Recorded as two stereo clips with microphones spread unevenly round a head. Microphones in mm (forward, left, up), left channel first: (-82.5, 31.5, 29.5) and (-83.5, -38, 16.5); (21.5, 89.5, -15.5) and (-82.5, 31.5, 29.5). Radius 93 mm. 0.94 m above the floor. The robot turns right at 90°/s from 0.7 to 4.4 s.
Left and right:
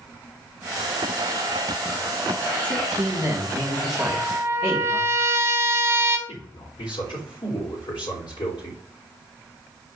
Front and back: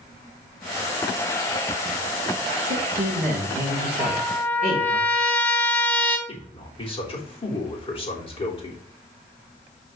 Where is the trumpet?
125° right, 0.7 m; by 6.2 s 90° right, 0.7 m.